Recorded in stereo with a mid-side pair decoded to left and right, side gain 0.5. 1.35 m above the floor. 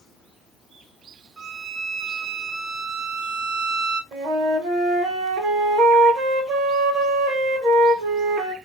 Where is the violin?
55° right, 1.5 m.